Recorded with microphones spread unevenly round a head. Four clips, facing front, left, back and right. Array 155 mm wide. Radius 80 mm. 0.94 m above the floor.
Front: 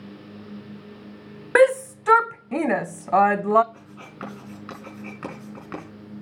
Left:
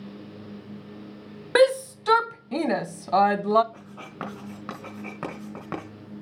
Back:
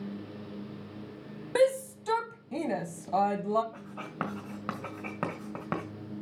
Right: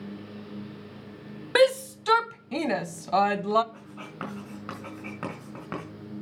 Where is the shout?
15° left, 0.6 m.